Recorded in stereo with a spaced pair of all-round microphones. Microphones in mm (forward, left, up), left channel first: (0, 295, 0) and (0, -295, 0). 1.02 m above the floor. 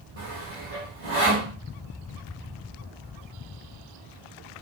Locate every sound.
0.2 s sawing: 65° right (ahead or behind), 1.7 m